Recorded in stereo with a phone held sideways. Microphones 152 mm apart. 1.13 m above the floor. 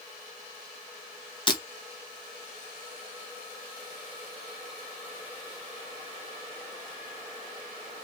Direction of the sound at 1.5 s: 30° left (ahead or behind).